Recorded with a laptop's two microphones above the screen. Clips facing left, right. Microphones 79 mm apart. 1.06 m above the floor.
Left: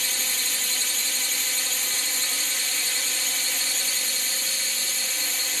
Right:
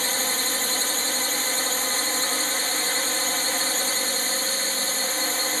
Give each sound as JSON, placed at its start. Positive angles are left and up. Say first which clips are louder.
{"t": 0.0, "sound": "a drone", "louder": "right 6 dB", "side_deg": -45}